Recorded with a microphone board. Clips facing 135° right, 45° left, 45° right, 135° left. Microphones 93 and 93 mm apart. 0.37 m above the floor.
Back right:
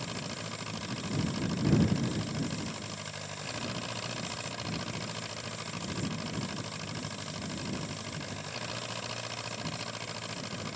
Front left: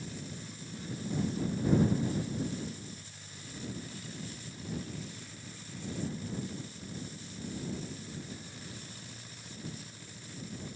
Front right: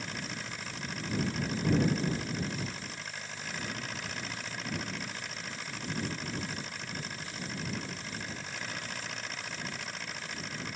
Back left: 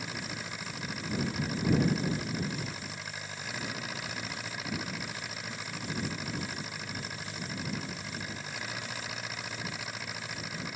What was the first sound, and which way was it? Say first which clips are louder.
An engine running: back right 4 dB, back left 1 dB; 140° right.